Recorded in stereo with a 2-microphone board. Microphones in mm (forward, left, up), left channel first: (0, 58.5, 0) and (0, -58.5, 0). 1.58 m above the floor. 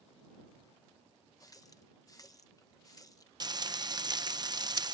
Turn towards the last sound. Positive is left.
turn(degrees=-35)  # may be behind; listen again after turning